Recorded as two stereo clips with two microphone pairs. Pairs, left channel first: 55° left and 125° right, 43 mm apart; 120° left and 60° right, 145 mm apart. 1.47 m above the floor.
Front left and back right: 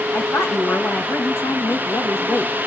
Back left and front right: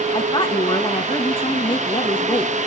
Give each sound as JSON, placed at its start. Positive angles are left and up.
{"t": 0.1, "sound": "a woman speaking", "azimuth_deg": 70, "distance_m": 2.0}